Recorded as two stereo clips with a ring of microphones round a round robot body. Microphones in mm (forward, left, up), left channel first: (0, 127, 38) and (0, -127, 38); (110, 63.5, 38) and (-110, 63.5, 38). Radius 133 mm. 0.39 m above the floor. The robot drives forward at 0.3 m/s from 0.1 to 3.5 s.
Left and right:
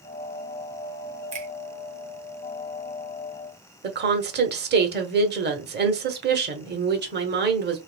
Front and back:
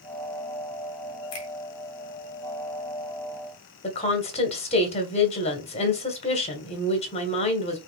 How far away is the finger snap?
About 1.9 m.